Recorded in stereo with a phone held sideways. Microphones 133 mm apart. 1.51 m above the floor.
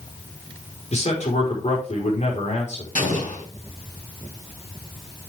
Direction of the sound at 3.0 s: 75° left (ahead or behind).